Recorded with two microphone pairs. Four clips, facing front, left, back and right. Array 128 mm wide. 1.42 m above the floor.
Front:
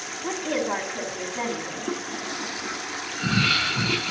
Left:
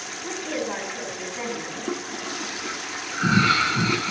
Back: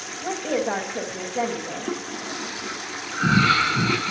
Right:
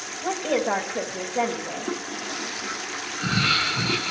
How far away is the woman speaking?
About 3 m.